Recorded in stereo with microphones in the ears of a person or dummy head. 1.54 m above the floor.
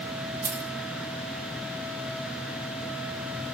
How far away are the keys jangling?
About 2.0 m.